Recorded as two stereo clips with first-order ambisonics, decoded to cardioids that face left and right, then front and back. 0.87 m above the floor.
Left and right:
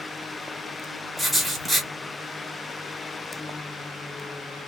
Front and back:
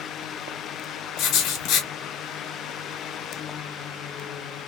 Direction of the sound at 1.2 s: 5° right.